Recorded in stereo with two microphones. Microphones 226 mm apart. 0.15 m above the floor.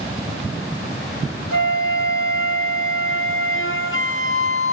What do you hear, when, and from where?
1.5 s a flute: 65° left (ahead or behind), 1.4 m